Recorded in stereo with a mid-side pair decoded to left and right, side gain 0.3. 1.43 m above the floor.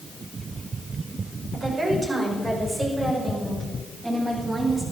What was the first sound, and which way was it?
A woman speaking, 60° right.